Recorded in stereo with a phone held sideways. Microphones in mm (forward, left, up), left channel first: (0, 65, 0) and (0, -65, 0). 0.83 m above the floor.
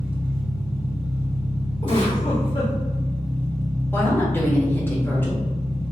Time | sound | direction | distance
0.0 | an engine running | 15° right (ahead or behind) | 0.9 m
1.8 | a giggle | 40° left (ahead or behind) | 1.8 m
3.9 | a woman speaking | 15° left (ahead or behind) | 1.3 m